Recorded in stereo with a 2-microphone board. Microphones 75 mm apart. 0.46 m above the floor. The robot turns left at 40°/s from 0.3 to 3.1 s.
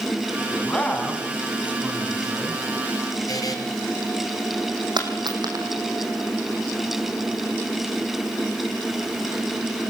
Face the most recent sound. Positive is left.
turn(degrees=-70)  # may be behind; listen again after turning